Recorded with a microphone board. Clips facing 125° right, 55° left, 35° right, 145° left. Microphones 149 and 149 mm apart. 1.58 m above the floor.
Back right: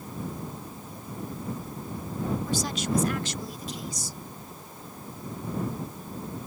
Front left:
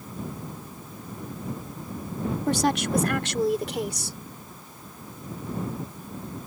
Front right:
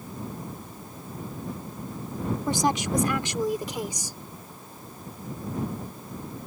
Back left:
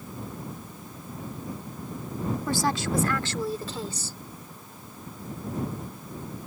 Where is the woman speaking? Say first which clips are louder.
Front left 5 dB, front right 2 dB; 35° left; by 4.2 s 40° left.